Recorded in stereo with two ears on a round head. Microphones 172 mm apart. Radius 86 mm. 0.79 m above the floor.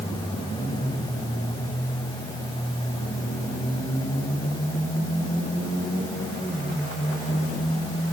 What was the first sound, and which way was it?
Only background noise.